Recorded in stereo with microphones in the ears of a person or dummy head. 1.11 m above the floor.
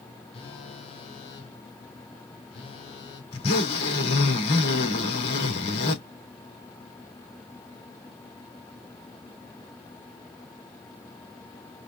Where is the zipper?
35° left (ahead or behind), 3 m.